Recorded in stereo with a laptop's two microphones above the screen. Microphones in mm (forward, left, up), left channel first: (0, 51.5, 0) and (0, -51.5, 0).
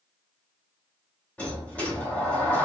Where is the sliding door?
15° left (ahead or behind), 0.9 m.